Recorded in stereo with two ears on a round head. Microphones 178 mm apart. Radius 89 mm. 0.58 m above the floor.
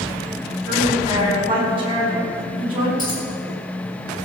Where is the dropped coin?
20° left (ahead or behind), 5.5 m.